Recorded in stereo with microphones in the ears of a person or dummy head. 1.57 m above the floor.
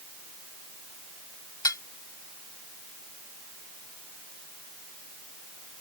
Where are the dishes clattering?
20° left (ahead or behind).